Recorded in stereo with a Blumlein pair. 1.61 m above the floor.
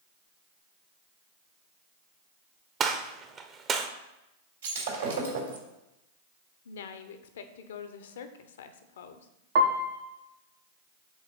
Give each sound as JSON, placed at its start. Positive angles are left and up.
{"t": 2.8, "sound": "a gunshot", "azimuth_deg": -25, "distance_m": 0.9}
{"t": 4.6, "sound": "breaking glass", "azimuth_deg": -65, "distance_m": 2.5}
{"t": 6.7, "sound": "a woman speaking", "azimuth_deg": 60, "distance_m": 0.8}
{"t": 9.6, "sound": "a piano", "azimuth_deg": -50, "distance_m": 0.8}